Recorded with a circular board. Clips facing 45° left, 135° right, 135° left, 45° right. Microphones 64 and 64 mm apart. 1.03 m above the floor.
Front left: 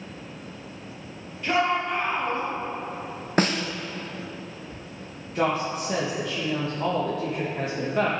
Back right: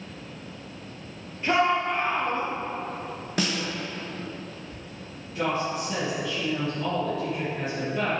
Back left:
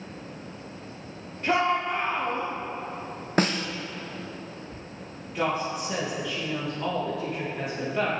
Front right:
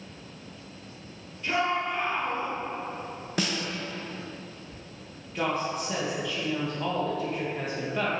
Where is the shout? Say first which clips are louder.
Back right 1 dB, back left 3 dB; 165° left, 1.2 m; by 2.5 s 110° left, 1.8 m.